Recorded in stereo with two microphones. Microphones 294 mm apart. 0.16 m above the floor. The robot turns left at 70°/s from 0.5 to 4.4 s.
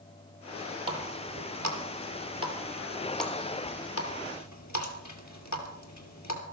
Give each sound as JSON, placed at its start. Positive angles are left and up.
{"t": 0.9, "sound": "a running tap", "side_deg": -15, "distance_m": 2.5}